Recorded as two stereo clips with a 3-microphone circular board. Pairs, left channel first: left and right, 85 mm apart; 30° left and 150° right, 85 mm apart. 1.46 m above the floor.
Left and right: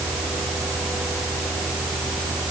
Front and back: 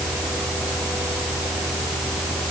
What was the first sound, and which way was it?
Only background noise.